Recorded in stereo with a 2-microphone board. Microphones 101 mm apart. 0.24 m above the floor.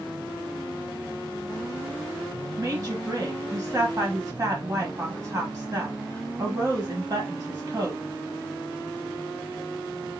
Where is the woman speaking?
40° right (ahead or behind), 1.2 m.